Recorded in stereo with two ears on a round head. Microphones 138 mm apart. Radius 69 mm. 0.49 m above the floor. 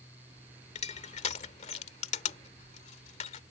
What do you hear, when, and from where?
0.8 s crushing: 45° left (ahead or behind)